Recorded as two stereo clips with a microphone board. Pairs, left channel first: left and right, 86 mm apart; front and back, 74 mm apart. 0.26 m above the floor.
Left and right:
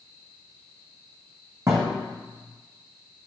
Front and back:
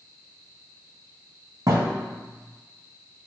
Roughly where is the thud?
Behind right.